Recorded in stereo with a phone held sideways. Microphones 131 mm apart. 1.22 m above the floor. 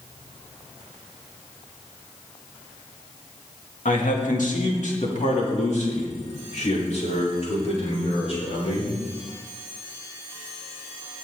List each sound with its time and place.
3.9 s a man speaking: 75° left (ahead or behind), 2.5 m; by 8.9 s 50° left (ahead or behind), 6 m